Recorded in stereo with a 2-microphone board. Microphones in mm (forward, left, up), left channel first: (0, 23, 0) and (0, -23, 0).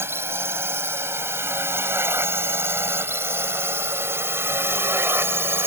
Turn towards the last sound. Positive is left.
turn(degrees=-60)  # may be behind; listen again after turning